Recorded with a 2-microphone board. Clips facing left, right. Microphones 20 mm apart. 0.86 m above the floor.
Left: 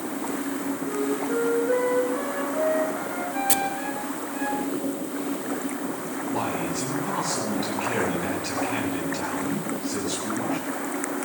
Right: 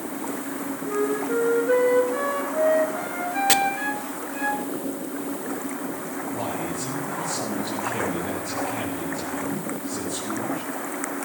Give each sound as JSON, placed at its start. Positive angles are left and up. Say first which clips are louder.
{"t": 0.8, "sound": "a flute", "louder": "right 4 dB", "side_deg": -20, "distance_m": 4.0}
{"t": 3.5, "sound": "chopping", "louder": "right 6 dB", "side_deg": -35, "distance_m": 0.6}
{"t": 6.3, "sound": "a man speaking", "louder": "left 3 dB", "side_deg": 85, "distance_m": 8.0}